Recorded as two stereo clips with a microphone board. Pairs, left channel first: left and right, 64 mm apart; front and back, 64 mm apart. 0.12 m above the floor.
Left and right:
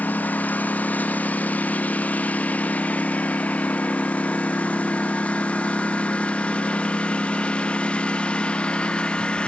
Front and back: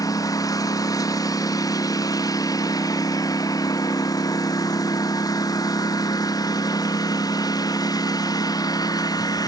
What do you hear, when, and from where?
0.0 s a lawn mower: 25° left; by 9.5 s 15° left